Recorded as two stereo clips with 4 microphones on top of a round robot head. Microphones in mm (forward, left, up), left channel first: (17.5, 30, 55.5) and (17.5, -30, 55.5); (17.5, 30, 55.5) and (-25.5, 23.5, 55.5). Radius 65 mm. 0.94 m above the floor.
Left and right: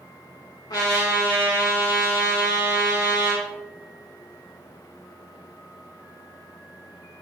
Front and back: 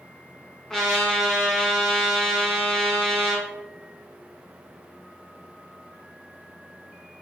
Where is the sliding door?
No sliding door in this recording.